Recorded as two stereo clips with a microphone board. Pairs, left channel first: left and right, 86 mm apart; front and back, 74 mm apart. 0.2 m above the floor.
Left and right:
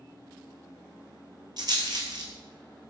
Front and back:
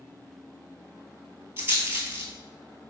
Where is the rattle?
120° right, 1.1 m.